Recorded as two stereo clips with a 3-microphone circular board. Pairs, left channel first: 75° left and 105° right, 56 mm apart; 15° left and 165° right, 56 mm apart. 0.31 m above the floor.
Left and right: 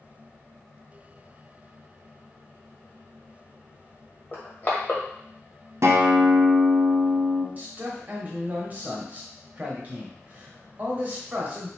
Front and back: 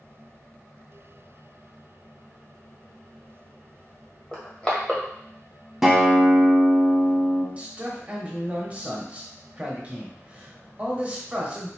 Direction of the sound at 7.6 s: 125° right.